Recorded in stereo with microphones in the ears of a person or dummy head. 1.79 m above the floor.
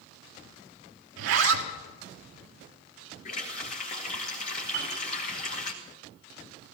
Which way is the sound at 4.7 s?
60° right (ahead or behind).